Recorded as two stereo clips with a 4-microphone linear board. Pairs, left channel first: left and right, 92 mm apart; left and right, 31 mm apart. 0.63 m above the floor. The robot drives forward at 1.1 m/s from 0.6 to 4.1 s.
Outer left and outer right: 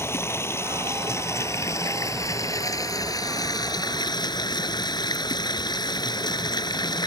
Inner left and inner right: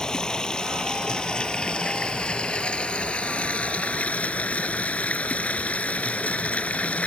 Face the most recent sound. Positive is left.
turn(degrees=50)  # may be behind; listen again after turning